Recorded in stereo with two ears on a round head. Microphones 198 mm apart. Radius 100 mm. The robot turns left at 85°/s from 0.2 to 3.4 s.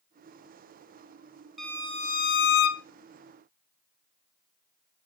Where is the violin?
Straight behind, 0.7 m; by 2.8 s 75° left, 0.7 m.